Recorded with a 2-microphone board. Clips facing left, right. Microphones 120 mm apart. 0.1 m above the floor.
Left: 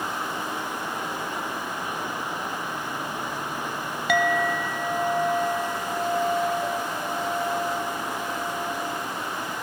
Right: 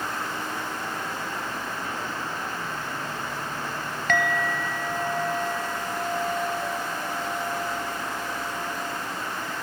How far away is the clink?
About 1.0 m.